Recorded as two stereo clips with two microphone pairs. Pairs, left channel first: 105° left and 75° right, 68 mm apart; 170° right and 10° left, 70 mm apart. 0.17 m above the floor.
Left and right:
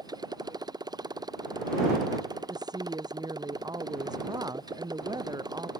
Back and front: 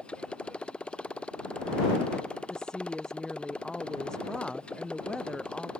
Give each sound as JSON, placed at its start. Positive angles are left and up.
{"t": 0.0, "sound": "a motorcycle", "azimuth_deg": -95}
{"t": 2.5, "sound": "a woman speaking", "azimuth_deg": -90}